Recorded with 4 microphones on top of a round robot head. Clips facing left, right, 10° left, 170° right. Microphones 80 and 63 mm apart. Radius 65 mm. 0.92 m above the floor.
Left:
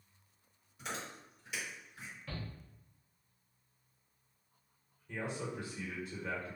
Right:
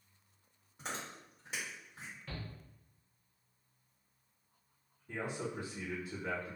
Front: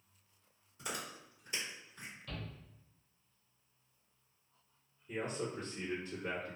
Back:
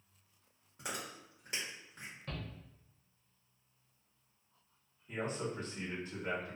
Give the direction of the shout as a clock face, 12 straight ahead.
6 o'clock.